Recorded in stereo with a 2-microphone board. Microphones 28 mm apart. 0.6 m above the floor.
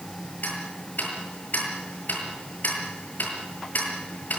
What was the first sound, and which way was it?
Ticking, 80° left.